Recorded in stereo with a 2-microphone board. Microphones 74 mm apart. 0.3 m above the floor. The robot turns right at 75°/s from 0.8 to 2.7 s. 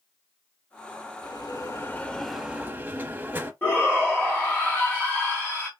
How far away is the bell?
About 0.6 m.